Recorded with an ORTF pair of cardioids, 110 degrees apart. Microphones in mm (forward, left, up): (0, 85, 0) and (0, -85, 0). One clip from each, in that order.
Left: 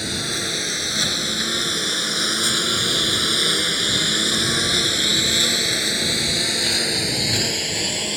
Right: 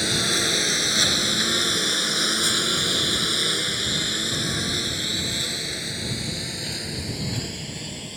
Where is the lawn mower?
15° right; by 8.2 s 70° left.